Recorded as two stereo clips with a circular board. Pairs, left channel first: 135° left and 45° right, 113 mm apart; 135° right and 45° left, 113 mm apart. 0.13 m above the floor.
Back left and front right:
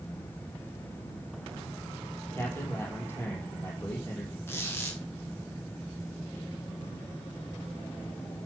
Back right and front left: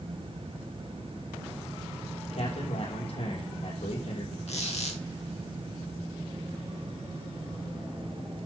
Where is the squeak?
155° right, 3 m.